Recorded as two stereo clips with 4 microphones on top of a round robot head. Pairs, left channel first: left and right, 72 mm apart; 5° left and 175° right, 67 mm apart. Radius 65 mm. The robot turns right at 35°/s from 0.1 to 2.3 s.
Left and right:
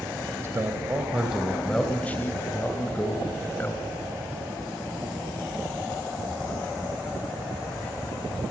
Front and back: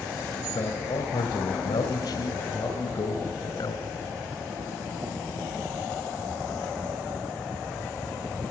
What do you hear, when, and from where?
0.4 s a man speaking: 40° right, 3 m; by 3.9 s 25° left, 3 m